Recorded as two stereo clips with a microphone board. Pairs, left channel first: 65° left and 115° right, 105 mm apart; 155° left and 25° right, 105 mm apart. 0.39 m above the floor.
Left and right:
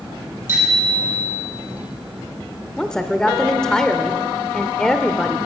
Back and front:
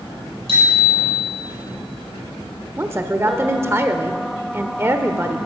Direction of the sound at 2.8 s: 5° right.